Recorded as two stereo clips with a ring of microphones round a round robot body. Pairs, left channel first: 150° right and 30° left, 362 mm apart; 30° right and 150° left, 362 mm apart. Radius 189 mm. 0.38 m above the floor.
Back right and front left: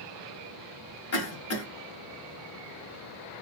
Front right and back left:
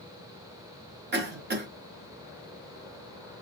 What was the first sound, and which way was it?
A cough, 165° right.